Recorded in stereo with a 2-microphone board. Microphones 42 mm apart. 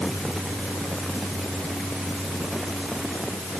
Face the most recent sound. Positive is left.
No sound to turn to.